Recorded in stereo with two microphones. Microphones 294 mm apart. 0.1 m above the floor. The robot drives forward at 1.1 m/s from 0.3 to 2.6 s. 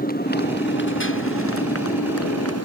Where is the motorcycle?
30° left (ahead or behind); by 2.7 s 55° left (ahead or behind).